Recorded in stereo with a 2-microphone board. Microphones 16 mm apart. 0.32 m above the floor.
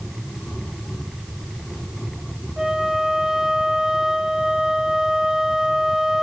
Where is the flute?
65° right (ahead or behind), 7.5 m.